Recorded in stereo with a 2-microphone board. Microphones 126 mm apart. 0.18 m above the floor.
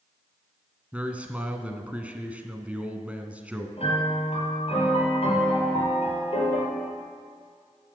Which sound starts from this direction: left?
A piano, at 3.8 s.